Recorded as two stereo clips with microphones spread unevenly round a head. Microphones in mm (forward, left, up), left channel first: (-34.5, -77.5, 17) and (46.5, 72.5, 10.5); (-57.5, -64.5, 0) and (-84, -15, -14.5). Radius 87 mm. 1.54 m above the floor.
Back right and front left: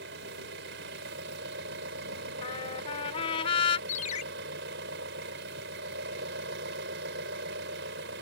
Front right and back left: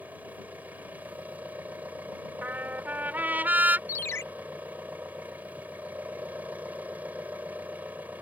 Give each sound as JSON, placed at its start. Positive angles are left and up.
{"t": 0.0, "sound": "an engine running", "azimuth_deg": 35}
{"t": 2.4, "sound": "a trumpet", "azimuth_deg": 180}
{"t": 3.9, "sound": "a ringtone", "azimuth_deg": -75}